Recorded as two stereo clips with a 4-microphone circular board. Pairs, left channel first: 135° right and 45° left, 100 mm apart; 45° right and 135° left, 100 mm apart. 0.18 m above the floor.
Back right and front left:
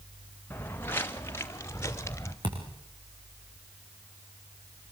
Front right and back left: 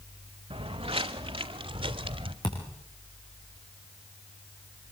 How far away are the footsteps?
About 1.6 m.